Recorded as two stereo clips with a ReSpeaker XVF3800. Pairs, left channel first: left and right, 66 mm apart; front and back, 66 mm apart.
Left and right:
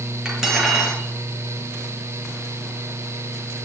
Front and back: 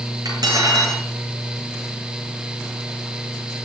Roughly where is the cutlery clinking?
Behind.